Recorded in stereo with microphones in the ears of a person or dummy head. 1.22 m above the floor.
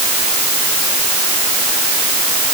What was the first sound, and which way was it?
Only background noise.